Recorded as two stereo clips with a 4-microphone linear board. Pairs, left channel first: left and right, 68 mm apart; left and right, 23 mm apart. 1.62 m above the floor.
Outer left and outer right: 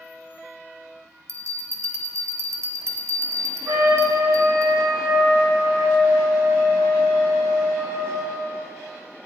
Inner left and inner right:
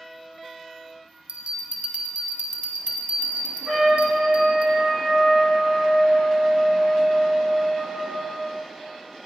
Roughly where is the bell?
Right.